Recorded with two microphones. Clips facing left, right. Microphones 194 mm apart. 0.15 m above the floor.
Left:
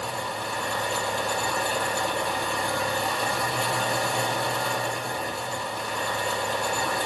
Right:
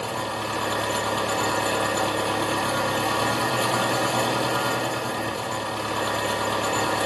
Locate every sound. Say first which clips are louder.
0.0 s an engine running: right 3 dB; 75° right (ahead or behind), 1.5 m